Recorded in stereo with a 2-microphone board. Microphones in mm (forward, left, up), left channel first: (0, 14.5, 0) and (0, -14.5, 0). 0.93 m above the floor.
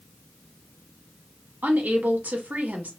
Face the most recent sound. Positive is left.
turn(degrees=-75)  # may be behind; listen again after turning